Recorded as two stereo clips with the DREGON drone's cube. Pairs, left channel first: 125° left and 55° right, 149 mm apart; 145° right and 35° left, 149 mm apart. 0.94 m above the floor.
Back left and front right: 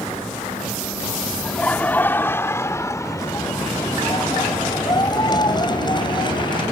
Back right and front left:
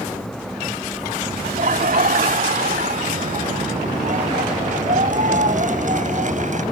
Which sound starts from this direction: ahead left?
Laughter, at 1.4 s.